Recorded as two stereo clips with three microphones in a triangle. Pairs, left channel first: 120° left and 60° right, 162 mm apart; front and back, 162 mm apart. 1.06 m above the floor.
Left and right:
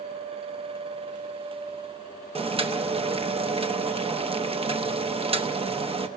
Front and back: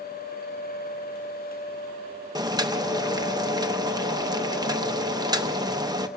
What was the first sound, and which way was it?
Boiling, 110° right.